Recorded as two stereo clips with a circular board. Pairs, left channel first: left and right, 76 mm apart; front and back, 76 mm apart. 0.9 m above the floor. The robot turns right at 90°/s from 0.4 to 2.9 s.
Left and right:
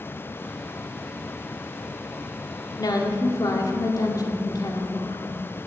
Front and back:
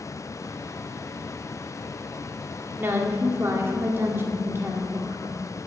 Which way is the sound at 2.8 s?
115° left.